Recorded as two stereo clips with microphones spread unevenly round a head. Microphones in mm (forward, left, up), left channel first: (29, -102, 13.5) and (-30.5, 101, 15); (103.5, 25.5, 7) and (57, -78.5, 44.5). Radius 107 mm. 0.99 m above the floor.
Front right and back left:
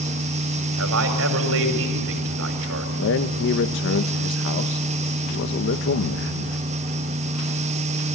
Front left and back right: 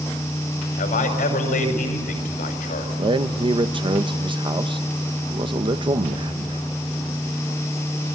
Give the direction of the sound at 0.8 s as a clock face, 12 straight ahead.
9 o'clock.